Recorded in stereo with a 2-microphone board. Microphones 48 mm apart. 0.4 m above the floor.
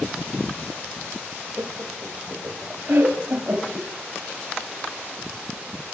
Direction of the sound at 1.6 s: 55° right (ahead or behind).